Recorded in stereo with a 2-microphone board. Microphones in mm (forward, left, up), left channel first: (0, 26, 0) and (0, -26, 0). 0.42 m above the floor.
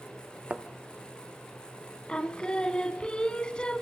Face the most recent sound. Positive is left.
turn(degrees=20)  # may be behind; listen again after turning